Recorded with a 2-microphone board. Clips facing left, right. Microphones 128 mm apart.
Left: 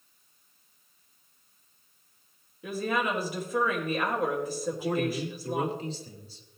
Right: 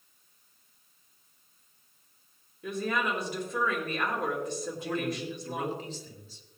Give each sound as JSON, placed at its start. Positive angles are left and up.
{"t": 2.6, "sound": "a woman speaking", "side_deg": 5, "distance_m": 3.5}
{"t": 4.7, "sound": "a man speaking", "side_deg": 35, "distance_m": 2.5}